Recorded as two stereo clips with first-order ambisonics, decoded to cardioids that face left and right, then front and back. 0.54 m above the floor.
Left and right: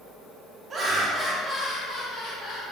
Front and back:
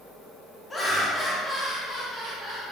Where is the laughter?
60° right, 0.7 m; by 2.7 s 90° left, 1.0 m.